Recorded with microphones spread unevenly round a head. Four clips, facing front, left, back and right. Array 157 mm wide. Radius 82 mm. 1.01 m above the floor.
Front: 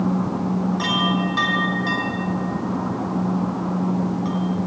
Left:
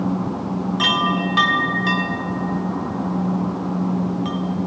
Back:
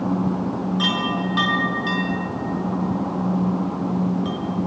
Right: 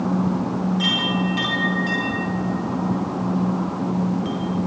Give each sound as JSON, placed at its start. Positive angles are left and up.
{"t": 0.8, "sound": "a chime", "azimuth_deg": 60, "distance_m": 3.0}